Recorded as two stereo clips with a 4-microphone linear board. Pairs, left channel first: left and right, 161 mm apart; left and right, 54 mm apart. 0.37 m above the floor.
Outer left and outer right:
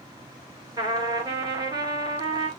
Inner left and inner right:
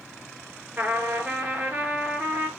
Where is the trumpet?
25° right (ahead or behind), 1.7 m.